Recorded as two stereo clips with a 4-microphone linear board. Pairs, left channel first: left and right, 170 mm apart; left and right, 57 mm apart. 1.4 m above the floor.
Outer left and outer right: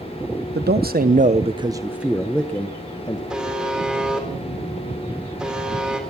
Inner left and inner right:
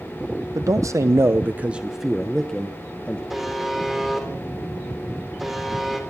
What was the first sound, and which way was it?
A man speaking, 75° right (ahead or behind).